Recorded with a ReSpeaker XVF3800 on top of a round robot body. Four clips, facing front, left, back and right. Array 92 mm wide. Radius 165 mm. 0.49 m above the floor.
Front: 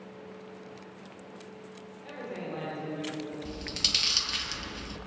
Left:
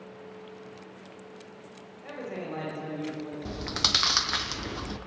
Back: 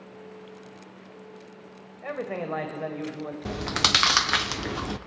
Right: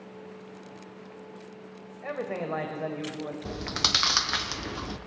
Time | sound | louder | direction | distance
2.0 | a man speaking | right 4 dB, back 7 dB | 145° right | 2.5 m
3.5 | chewing | even, back 11 dB | 175° right | 0.5 m